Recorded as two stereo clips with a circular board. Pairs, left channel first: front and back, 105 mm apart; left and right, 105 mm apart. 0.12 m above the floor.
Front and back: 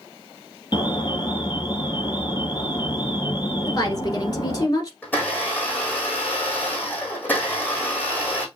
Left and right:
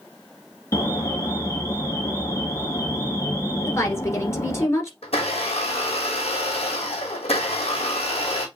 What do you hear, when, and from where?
0.7 s an alarm: 35° left, 3 m
3.7 s a woman speaking: 35° left, 1.8 m
5.0 s a blender: 75° left, 2.5 m